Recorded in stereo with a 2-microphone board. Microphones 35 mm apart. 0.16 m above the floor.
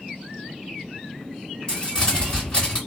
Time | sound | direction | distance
1.7 | crumpling | 25° left (ahead or behind) | 2 m